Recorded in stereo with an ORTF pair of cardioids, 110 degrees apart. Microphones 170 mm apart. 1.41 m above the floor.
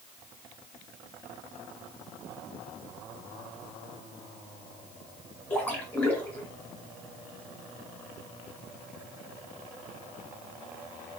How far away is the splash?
About 1.0 m.